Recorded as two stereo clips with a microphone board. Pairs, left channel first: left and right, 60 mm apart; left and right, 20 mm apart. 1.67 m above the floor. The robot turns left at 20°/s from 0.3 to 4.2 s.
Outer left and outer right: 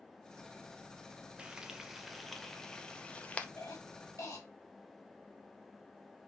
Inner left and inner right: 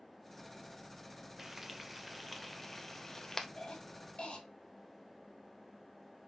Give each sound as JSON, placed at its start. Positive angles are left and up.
{"t": 1.4, "sound": "frying", "side_deg": -15, "distance_m": 0.6}
{"t": 3.6, "sound": "a cough", "side_deg": 55, "distance_m": 1.8}